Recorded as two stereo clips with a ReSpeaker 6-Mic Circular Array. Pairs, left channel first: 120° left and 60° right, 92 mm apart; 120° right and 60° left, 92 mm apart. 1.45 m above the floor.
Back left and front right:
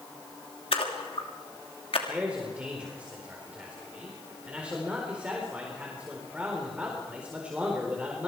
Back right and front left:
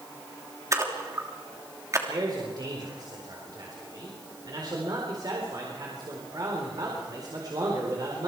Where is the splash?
115° left, 3 m.